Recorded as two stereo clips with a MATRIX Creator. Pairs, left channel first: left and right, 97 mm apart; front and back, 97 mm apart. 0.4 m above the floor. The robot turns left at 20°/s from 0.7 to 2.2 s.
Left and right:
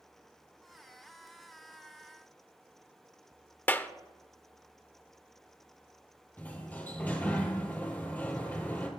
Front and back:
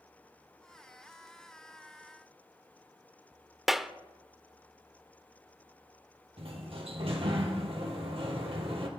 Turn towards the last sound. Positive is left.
turn(degrees=165)